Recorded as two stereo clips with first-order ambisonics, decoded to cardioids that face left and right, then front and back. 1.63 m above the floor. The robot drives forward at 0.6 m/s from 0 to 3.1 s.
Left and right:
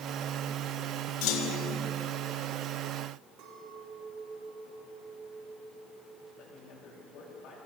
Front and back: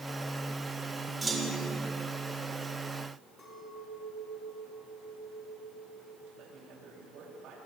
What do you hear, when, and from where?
1.2 s a clunk: 100° left, 3 m; by 1.8 s 105° left, 3 m
3.4 s a clink: 75° right, 9 m
6.4 s a man speaking: 130° left, 8 m